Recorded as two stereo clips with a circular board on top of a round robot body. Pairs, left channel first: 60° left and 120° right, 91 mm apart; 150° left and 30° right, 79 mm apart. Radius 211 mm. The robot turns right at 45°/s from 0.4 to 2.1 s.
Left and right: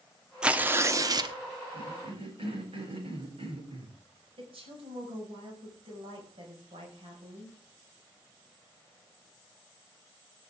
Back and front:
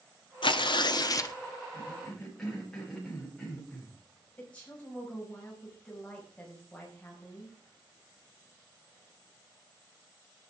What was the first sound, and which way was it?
Tearing paper, 160° left.